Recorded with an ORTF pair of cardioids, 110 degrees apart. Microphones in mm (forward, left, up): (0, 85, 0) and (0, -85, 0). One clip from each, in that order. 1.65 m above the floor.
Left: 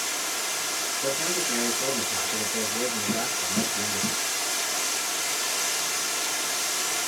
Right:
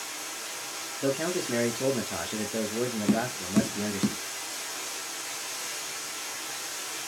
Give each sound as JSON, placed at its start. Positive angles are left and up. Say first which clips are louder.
{"t": 0.0, "sound": "running water", "louder": "left 8 dB", "azimuth_deg": 65, "distance_m": 0.9}
{"t": 1.0, "sound": "a man speaking", "louder": "right 1 dB", "azimuth_deg": -35, "distance_m": 0.9}
{"t": 3.1, "sound": "tapping", "louder": "left 2 dB", "azimuth_deg": -40, "distance_m": 0.6}